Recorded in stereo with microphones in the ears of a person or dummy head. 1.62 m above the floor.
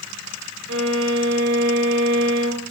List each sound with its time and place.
0.7 s a violin: 60° right (ahead or behind), 0.9 m